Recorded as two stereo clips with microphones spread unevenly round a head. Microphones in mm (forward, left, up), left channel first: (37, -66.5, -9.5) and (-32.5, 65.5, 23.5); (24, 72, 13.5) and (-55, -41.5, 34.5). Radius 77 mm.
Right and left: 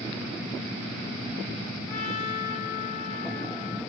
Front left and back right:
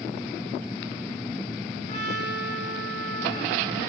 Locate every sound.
1.9 s a trumpet: 5° left, 7 m